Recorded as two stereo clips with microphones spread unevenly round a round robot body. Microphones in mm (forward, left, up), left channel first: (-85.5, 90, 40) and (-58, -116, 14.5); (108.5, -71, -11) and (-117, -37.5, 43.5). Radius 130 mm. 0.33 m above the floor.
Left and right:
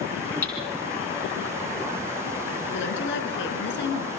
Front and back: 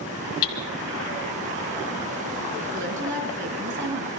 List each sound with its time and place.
0.4 s hammering: 15° left, 1.6 m
2.7 s a woman speaking: 120° left, 4 m